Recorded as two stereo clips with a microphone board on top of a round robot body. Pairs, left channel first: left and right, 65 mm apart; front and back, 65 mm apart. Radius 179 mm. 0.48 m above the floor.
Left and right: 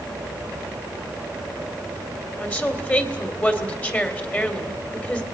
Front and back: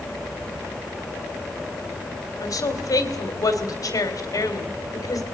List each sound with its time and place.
2.4 s a woman speaking: 25° left, 3 m